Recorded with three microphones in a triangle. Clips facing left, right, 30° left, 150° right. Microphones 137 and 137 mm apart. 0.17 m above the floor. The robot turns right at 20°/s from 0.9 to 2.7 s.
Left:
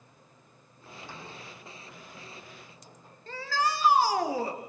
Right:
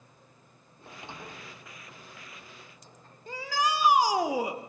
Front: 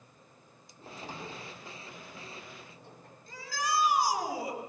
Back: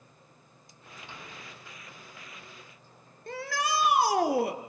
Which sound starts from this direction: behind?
A shout, at 3.3 s.